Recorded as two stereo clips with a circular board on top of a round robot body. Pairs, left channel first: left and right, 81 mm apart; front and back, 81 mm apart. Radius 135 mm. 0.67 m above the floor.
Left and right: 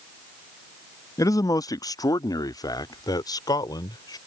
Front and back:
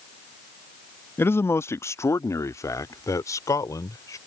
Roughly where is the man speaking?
Ahead left.